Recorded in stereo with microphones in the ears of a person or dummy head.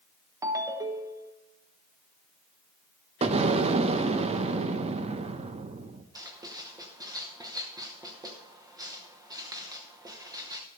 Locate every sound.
0.4 s a ringtone: 20° right (ahead or behind), 0.9 m
3.2 s an explosion: 35° right (ahead or behind), 0.8 m
6.2 s writing: 15° right (ahead or behind), 0.9 m